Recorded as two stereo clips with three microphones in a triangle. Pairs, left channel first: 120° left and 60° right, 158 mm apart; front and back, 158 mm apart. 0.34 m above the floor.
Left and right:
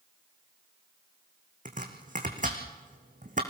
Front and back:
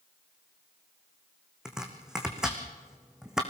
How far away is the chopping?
About 3 m.